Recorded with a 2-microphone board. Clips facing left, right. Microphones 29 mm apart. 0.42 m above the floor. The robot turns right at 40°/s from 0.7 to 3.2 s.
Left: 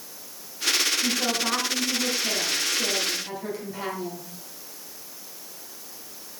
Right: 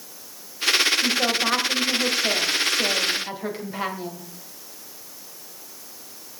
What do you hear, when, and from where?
1.0 s a woman speaking: 125° right, 2.5 m; by 4.3 s 35° right, 2.5 m